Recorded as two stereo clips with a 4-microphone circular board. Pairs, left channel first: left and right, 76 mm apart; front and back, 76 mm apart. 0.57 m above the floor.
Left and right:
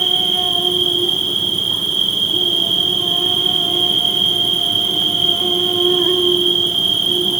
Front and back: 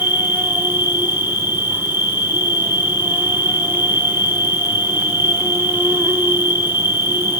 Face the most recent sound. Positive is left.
turn(degrees=175)